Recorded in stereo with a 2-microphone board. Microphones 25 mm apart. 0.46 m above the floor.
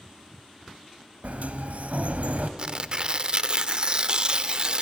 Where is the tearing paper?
40° right (ahead or behind), 0.7 m.